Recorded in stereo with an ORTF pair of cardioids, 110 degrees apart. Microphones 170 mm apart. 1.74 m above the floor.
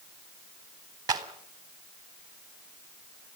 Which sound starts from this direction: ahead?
A clap, at 1.1 s.